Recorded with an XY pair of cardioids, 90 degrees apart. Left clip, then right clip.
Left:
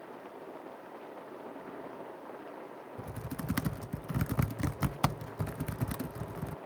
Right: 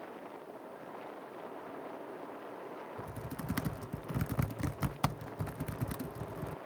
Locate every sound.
3.0 s typing on a keyboard: 30° left